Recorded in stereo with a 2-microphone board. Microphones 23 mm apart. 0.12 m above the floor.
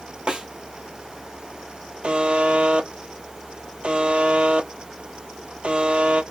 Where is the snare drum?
55° right (ahead or behind), 1.2 m.